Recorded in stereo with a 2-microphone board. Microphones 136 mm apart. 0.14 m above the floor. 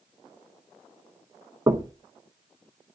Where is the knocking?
25° right (ahead or behind), 1.1 m.